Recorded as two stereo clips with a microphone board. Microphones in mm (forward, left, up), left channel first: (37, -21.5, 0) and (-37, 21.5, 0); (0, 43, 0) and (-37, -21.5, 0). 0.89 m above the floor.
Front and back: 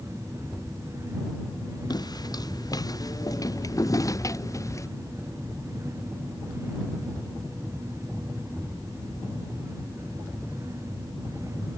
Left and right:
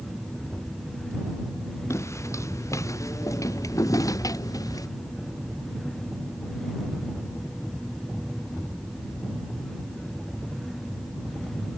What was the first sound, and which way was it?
Footsteps, 10° left.